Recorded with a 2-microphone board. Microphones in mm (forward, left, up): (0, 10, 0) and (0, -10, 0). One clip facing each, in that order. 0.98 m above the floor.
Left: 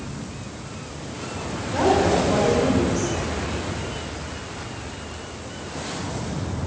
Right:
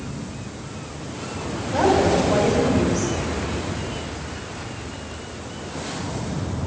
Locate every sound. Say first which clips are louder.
1.7 s a woman speaking: right 1 dB; 15° right (ahead or behind), 4 m